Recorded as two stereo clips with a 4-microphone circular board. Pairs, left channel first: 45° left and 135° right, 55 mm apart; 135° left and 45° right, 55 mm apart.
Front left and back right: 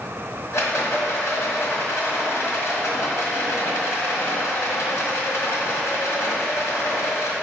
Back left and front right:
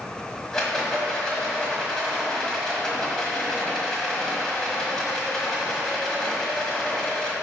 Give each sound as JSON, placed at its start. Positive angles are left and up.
{"t": 0.5, "sound": "a rattle", "azimuth_deg": 55, "distance_m": 1.6}